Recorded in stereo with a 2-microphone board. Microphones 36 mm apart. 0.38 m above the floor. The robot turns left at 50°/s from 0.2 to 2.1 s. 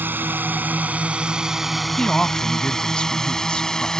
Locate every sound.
0.0 s a drone: 70° right (ahead or behind); by 4.0 s 15° left (ahead or behind)
2.0 s a woman speaking: 35° left (ahead or behind); by 4.0 s 30° left (ahead or behind)